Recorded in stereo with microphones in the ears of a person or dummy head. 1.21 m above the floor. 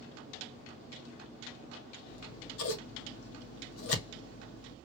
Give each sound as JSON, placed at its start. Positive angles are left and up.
{"t": 2.1, "sound": "scissors", "side_deg": 85, "distance_m": 1.1}